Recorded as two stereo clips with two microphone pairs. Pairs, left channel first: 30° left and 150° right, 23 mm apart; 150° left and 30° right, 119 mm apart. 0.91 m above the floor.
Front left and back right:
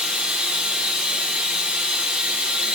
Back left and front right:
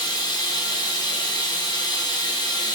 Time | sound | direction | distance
0.0 | running water | 155° right | 1.0 m